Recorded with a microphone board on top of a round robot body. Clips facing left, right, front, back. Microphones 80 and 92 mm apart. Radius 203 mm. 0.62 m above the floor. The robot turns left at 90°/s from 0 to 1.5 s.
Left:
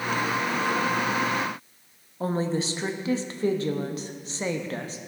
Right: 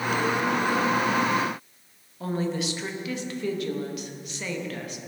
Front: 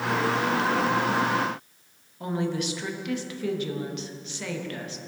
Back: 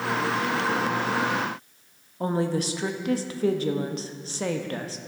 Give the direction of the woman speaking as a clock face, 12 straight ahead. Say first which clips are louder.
Left 2 dB, back 3 dB; 7 o'clock.